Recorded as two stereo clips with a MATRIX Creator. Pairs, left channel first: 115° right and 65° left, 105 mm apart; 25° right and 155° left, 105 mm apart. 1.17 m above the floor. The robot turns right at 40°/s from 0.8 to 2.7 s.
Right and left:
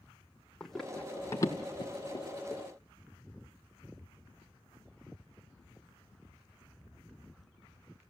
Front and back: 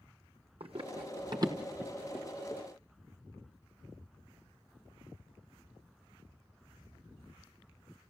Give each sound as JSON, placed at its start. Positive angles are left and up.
{"t": 0.6, "sound": "running footsteps", "azimuth_deg": 160, "distance_m": 2.5}